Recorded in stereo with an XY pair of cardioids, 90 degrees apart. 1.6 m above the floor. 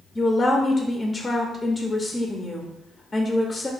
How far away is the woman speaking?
About 0.6 m.